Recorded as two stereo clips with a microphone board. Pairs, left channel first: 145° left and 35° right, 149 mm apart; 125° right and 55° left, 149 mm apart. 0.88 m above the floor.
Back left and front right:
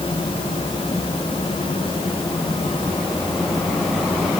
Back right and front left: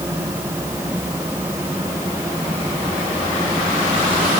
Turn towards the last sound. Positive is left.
No sound to turn to.